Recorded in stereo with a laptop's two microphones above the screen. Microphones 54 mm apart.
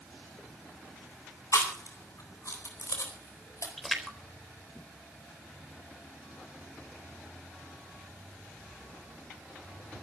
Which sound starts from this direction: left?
Chewing, at 1.5 s.